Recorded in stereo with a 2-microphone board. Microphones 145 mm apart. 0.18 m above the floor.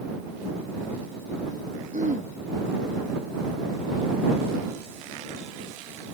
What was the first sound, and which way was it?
Throat clearing, 80° right.